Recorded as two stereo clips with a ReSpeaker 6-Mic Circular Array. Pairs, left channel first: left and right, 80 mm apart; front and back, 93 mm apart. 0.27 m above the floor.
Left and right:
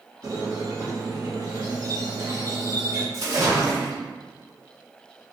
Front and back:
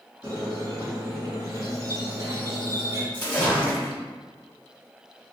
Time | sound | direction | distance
0.2 | a squeak | 130° right | 1.0 m
3.1 | a splash | 65° right | 0.8 m